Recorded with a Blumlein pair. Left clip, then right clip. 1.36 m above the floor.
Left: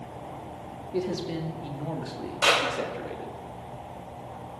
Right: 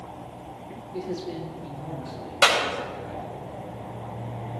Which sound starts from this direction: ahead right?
A clap, at 2.4 s.